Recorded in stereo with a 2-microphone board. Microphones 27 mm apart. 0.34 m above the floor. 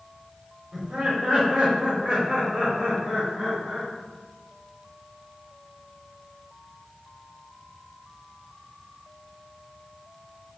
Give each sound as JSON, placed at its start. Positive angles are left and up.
{"t": 0.7, "sound": "laughter", "side_deg": -25, "distance_m": 1.4}